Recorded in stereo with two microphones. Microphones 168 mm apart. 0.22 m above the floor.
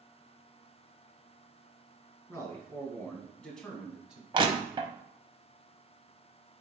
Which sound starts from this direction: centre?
A man speaking, at 2.3 s.